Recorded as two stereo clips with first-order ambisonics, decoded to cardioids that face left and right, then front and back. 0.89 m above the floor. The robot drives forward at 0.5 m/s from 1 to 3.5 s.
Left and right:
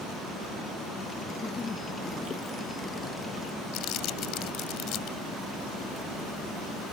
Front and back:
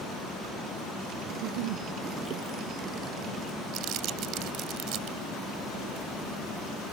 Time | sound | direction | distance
1.3 | a giggle | 165° left | ?
3.7 | crumpling | 135° left | ?